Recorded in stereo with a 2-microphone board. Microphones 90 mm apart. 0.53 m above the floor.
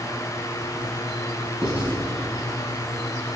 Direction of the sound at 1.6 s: 10° right (ahead or behind).